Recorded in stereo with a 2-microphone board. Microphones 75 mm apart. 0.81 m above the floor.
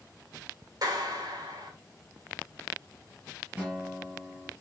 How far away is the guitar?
About 4.5 m.